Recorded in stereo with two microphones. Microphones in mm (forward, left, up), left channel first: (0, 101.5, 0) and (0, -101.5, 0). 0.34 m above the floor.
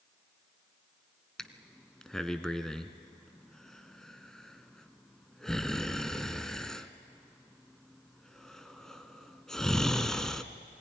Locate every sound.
1.4 s breathing: 5° left (ahead or behind), 0.7 m